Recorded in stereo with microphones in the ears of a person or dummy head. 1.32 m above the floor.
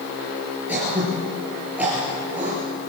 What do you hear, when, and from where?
0.7 s throat clearing: centre (ahead or behind), 5.5 m